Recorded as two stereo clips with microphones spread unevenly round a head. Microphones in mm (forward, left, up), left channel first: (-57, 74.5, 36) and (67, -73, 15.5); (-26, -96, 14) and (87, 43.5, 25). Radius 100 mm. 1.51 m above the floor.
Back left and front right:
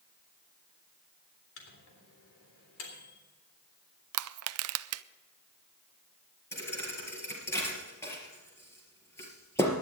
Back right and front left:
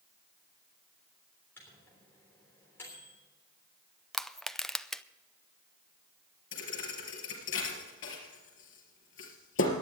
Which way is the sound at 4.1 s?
40° right.